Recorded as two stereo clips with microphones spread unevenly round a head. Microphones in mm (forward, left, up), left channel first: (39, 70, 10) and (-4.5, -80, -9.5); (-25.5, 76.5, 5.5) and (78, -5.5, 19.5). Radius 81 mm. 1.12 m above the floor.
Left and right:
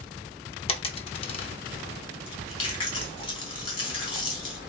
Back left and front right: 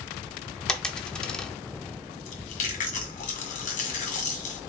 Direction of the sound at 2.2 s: 125° left.